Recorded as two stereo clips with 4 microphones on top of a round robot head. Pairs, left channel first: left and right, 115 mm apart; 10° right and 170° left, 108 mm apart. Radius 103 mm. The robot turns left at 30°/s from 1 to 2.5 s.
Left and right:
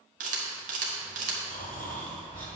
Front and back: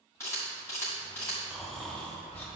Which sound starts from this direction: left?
Snoring, at 1.5 s.